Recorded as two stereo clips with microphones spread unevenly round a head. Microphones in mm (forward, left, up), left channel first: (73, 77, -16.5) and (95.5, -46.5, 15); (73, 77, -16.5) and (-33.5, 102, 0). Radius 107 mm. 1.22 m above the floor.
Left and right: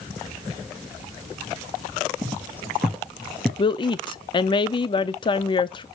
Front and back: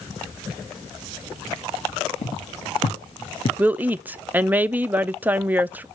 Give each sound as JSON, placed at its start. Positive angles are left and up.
{"t": 2.2, "sound": "footsteps", "azimuth_deg": -25, "distance_m": 2.0}
{"t": 3.6, "sound": "a woman speaking", "azimuth_deg": 85, "distance_m": 0.6}